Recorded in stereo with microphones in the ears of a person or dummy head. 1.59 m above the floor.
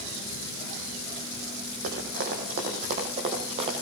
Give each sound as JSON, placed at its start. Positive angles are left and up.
{"t": 1.8, "sound": "running footsteps", "side_deg": -45, "distance_m": 4.0}